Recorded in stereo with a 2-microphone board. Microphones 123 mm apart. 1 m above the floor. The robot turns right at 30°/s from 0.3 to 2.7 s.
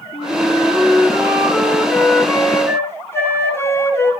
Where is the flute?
50° right, 3.5 m; by 4.1 s 20° left, 3.5 m.